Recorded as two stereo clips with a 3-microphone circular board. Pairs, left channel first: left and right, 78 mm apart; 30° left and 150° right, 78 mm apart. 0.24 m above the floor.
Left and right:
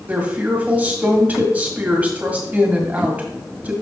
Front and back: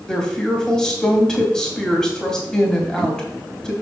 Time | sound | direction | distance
0.1 | a woman speaking | 40° right | 1.6 m